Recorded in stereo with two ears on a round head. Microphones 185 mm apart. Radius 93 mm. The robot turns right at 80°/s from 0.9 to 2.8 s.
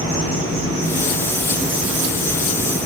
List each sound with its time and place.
0.0 s an insect: 125° right, 1.7 m; by 2.9 s 25° left, 1.7 m